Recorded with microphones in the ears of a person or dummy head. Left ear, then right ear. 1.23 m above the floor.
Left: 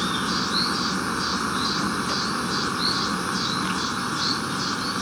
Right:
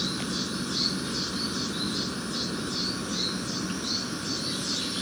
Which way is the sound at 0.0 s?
45° left (ahead or behind).